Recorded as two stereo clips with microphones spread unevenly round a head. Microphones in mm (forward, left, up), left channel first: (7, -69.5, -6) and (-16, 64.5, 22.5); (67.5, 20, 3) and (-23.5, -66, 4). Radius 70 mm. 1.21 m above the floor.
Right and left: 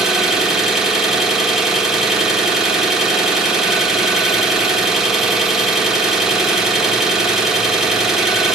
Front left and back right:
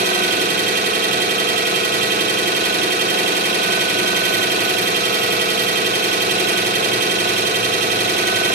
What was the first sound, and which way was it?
An engine running, 175° right.